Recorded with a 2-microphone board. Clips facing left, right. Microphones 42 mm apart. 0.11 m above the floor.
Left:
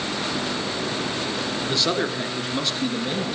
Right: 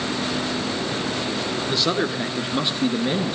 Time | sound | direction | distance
1.7 | a man speaking | centre (ahead or behind) | 1.1 m